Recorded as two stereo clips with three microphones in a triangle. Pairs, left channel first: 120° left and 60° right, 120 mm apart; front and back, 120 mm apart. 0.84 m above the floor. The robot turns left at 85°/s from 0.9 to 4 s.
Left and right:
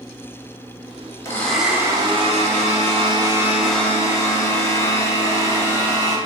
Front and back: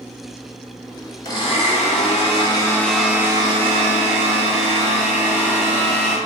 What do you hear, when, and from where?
1.2 s a blender: 55° left, 1.0 m; by 6.2 s straight behind, 1.0 m